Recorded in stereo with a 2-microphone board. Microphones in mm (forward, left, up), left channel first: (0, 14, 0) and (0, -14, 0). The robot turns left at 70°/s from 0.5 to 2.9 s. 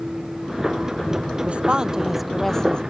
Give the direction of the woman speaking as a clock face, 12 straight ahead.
4 o'clock.